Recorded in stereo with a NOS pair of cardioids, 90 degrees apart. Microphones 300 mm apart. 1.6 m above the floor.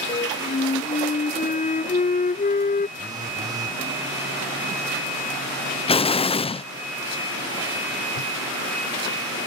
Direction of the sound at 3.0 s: 15° right.